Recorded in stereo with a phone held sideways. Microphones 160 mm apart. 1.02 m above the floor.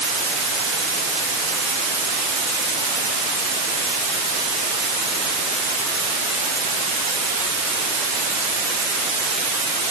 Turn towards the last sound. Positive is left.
No sound to turn to.